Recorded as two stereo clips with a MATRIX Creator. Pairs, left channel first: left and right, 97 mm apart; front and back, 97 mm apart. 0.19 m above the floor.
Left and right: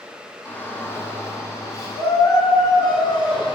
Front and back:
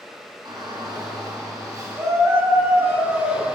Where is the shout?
155° left, 2.5 m; by 3.6 s 105° left, 3 m.